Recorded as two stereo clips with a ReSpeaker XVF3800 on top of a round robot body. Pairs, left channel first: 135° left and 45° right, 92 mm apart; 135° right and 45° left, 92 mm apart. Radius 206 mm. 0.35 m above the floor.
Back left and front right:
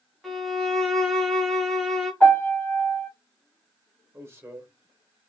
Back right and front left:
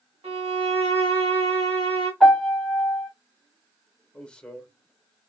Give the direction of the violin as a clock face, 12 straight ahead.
10 o'clock.